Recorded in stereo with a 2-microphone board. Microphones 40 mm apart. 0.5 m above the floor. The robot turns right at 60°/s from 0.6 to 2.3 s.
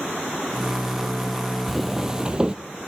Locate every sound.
1.7 s footsteps: 175° left, 0.6 m; by 2.5 s 150° right, 0.6 m